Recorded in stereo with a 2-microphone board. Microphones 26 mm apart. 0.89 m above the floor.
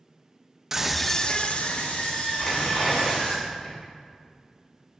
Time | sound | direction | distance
0.7 | a scream | 20° right (ahead or behind) | 0.7 m
2.4 | tearing paper | 15° left (ahead or behind) | 3 m